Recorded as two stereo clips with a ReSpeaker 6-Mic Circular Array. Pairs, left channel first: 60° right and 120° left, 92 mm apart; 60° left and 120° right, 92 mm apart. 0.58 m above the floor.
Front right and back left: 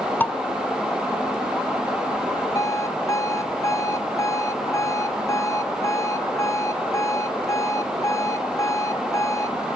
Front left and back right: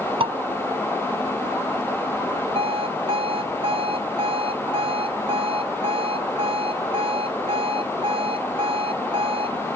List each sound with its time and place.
0.2 s dishes clattering: 130° right
2.5 s an alarm clock: 115° right